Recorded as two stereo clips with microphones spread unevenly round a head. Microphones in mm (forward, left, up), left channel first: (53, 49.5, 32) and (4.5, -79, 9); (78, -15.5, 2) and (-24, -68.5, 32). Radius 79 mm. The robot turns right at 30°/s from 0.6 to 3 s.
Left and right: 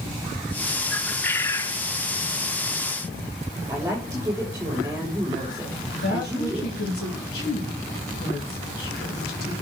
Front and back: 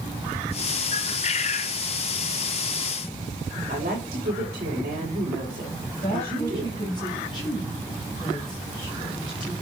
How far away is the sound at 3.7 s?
About 6 m.